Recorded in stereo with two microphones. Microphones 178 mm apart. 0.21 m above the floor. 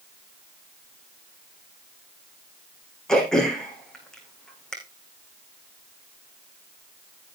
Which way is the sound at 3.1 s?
5° left (ahead or behind).